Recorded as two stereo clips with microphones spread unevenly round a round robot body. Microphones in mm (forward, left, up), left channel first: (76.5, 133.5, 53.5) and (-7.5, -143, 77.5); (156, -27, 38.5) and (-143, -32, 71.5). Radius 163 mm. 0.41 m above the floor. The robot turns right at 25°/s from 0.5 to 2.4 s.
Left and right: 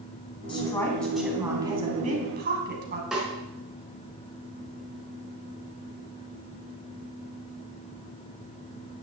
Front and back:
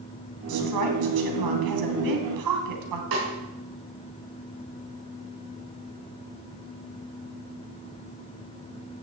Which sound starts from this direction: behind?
A snare drum, at 3.1 s.